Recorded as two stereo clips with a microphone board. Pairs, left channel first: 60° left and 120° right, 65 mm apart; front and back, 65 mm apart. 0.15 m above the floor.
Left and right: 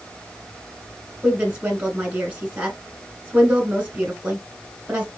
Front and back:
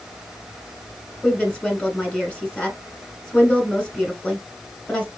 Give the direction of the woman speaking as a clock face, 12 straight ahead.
2 o'clock.